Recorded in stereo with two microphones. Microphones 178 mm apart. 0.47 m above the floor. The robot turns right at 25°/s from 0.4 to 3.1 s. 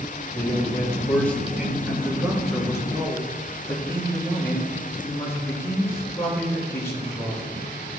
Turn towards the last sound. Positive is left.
turn(degrees=15)